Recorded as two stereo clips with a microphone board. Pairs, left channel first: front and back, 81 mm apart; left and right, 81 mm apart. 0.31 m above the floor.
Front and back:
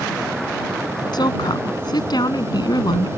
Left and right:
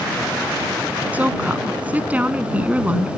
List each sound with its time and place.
1.1 s a woman speaking: 20° right